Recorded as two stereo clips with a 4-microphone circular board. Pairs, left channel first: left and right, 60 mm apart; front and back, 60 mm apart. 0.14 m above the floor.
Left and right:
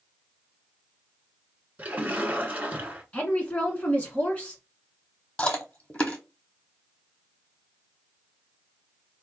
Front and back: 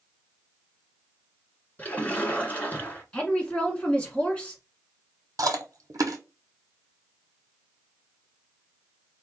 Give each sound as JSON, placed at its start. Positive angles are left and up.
{"t": 1.8, "sound": "a splash", "azimuth_deg": -45, "distance_m": 1.2}
{"t": 3.1, "sound": "a woman speaking", "azimuth_deg": 50, "distance_m": 1.4}
{"t": 5.4, "sound": "chewing", "azimuth_deg": 160, "distance_m": 0.9}